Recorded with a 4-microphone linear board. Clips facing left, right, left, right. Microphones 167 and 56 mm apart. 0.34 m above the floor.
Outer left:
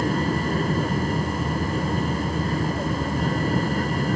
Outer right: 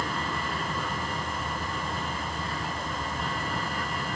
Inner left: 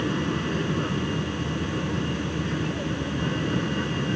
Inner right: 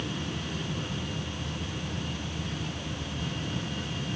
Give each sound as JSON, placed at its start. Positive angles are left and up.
{"t": 0.0, "sound": "an aircraft", "side_deg": 40}